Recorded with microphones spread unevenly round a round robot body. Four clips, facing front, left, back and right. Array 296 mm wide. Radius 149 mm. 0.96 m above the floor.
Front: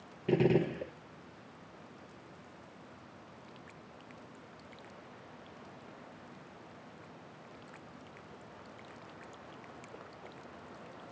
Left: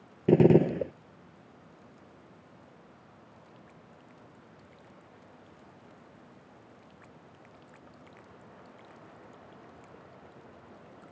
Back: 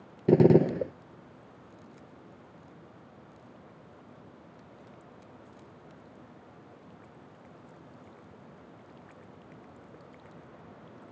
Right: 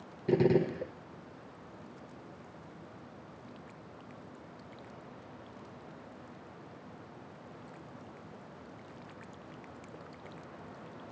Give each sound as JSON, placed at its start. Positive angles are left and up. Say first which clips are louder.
{"t": 0.3, "sound": "a gunshot", "louder": "left 6 dB, back 8 dB", "azimuth_deg": 135, "distance_m": 0.5}